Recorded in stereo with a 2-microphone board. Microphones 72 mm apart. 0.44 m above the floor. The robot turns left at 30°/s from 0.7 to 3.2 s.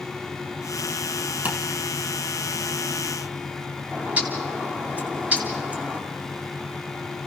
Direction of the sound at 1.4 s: 20° right (ahead or behind).